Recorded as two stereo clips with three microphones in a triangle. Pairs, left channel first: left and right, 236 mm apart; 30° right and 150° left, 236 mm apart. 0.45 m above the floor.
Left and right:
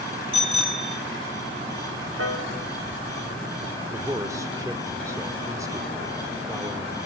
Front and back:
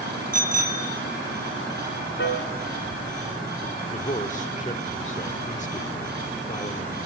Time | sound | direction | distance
0.3 | a bicycle bell | 155° right | 2.5 m
2.2 | a piano | 70° right | 1.8 m
3.9 | a man speaking | 25° right | 1.5 m